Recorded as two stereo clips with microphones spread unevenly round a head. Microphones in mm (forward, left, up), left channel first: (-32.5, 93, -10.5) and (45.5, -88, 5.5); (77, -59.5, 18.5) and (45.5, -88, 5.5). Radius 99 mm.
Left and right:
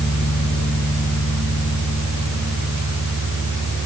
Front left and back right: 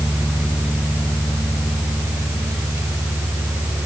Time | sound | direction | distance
0.0 | a fan | 100° right | 8.5 m